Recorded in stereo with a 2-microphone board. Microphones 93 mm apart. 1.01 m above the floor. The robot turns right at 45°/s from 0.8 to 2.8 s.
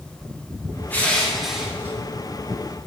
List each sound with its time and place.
0.9 s crushing: 160° left, 1.2 m; by 1.9 s 155° right, 1.2 m